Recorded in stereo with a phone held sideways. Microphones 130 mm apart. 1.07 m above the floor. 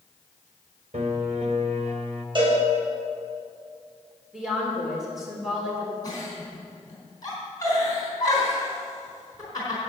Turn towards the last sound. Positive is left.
turn(degrees=30)  # may be behind; listen again after turning